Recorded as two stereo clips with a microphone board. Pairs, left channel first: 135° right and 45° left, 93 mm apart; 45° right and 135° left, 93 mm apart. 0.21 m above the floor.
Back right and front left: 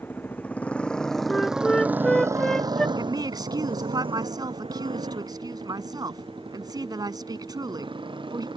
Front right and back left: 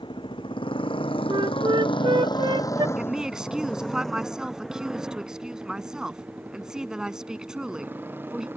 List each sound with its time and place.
0.0 s a motorcycle: 70° right; by 8.6 s 70° left
1.3 s a flute: 140° left
3.0 s a woman speaking: 55° left